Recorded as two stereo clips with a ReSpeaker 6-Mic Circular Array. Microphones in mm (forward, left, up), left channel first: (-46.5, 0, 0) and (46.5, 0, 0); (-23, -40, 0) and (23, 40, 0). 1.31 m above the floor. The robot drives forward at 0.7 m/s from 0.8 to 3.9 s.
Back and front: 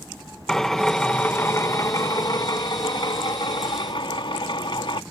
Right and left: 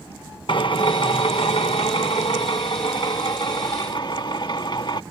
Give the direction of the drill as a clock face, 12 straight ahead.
3 o'clock.